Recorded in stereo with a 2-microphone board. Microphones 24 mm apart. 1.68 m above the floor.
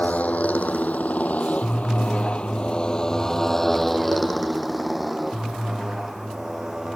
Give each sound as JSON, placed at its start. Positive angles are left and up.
{"t": 0.0, "sound": "a motorcycle", "side_deg": 75}